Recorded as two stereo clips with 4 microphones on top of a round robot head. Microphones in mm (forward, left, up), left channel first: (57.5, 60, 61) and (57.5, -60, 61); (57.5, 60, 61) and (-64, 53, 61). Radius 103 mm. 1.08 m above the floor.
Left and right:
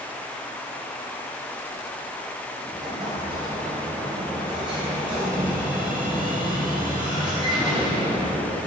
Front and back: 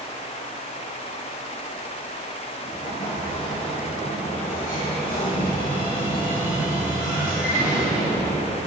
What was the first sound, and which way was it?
An explosion, 40° right.